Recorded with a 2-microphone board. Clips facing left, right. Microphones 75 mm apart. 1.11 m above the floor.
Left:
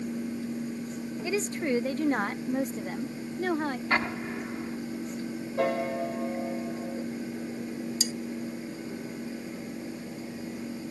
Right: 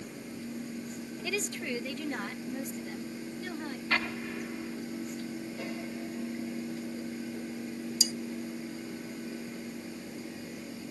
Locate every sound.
1.2 s a woman speaking: 20° left (ahead or behind); by 3.8 s 60° left (ahead or behind)
3.9 s an explosion: 30° left (ahead or behind)
5.6 s a piano: 70° left (ahead or behind)
8.0 s cutlery clinking: 55° left (ahead or behind)